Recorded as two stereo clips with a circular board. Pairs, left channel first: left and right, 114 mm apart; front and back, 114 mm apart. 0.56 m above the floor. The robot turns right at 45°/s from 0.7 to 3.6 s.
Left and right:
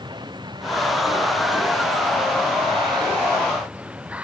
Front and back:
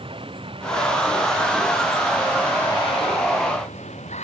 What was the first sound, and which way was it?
Running water, 140° right.